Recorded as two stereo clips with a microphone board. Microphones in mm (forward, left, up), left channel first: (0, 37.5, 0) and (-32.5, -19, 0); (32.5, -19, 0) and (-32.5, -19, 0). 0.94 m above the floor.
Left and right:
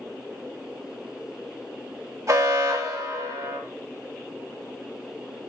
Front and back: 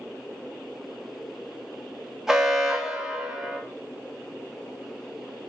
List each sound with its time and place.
2.3 s an alarm: 95° right, 1.6 m